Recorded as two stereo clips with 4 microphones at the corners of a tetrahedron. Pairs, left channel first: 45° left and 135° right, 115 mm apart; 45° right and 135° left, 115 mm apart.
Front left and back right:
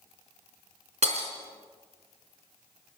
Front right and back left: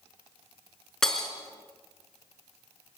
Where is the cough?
I don't hear a cough.